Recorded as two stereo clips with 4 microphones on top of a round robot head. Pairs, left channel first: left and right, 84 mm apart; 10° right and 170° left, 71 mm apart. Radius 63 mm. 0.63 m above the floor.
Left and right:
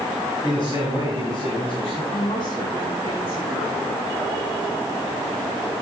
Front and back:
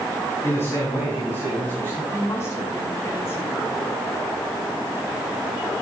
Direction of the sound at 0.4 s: 45° left.